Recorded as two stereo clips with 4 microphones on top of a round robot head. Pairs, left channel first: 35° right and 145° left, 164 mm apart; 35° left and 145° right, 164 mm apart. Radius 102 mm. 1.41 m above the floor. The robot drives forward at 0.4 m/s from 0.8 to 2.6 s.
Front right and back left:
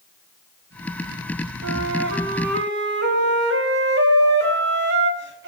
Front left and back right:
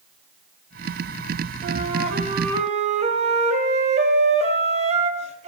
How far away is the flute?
About 2.5 m.